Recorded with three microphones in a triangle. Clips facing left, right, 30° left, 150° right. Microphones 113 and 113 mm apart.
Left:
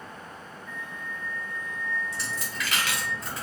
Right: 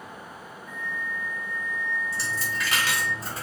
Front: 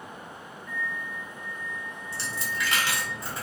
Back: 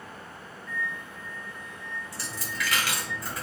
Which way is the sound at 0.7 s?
65° right.